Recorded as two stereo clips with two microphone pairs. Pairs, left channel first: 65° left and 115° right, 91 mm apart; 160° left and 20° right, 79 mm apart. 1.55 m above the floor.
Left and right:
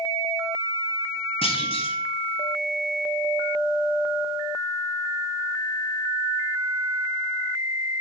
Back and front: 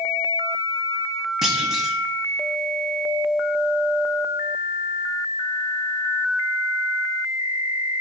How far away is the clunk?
About 1.4 m.